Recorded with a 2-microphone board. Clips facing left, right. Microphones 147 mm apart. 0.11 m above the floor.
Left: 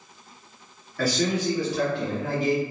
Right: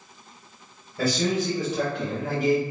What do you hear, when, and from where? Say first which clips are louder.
1.0 s a man speaking: even; 25° right (ahead or behind), 1.7 m; by 2.6 s 20° right (ahead or behind), 2.0 m